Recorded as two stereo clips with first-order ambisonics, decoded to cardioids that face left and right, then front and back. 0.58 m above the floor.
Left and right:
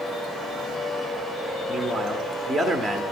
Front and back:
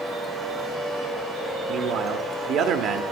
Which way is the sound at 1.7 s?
Straight behind.